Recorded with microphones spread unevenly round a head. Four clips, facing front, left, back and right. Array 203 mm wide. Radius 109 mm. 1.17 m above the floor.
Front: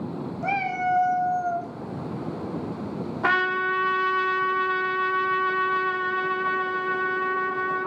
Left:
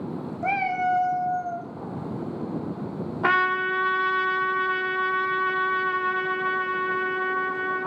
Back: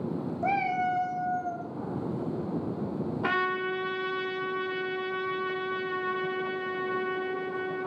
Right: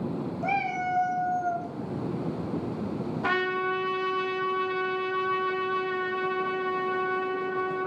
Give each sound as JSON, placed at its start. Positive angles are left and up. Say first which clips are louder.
{"t": 0.4, "sound": "a cat meowing", "louder": "left 5 dB, front 2 dB", "azimuth_deg": 150, "distance_m": 0.7}
{"t": 3.2, "sound": "a trumpet", "louder": "left 5 dB, front 7 dB", "azimuth_deg": 45, "distance_m": 1.1}